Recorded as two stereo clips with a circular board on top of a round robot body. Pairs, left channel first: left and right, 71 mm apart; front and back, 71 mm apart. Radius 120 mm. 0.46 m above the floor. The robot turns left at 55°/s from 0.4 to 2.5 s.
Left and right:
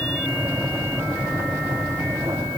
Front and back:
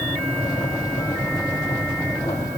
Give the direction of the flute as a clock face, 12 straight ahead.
I don't hear a flute.